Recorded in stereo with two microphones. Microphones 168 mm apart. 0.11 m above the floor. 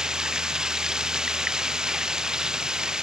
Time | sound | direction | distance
0.0 | running water | 5° right (ahead or behind) | ?